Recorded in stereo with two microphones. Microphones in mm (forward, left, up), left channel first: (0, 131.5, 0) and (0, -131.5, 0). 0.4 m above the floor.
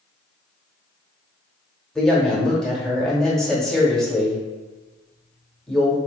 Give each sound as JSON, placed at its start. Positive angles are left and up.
{"t": 1.9, "sound": "a woman speaking", "side_deg": 0, "distance_m": 0.8}